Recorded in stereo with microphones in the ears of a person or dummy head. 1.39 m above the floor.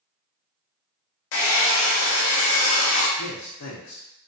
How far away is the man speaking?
About 0.5 m.